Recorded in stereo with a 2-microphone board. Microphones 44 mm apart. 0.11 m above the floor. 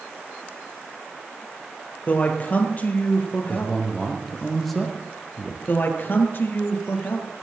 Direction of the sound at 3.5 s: 5° left (ahead or behind).